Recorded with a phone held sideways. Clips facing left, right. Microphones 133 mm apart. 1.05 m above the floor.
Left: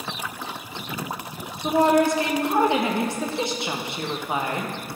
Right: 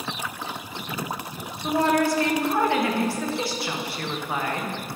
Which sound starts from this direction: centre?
A woman speaking, at 1.6 s.